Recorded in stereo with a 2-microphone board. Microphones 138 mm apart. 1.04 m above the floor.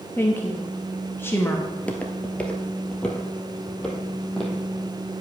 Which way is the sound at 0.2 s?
15° left (ahead or behind).